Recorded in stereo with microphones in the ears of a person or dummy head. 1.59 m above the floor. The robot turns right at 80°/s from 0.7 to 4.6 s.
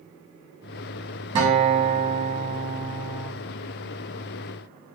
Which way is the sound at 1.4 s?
145° right.